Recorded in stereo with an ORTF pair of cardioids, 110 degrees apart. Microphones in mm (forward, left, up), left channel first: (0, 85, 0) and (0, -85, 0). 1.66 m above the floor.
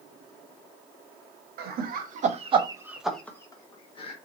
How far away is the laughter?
About 1.2 m.